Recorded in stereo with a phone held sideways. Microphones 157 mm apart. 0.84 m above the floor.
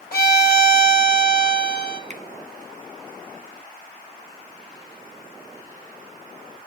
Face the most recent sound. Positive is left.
turn(degrees=-50)  # may be behind; listen again after turning